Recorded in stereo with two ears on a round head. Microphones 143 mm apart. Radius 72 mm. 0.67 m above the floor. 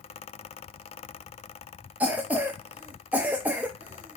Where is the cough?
10° right (ahead or behind), 0.6 m.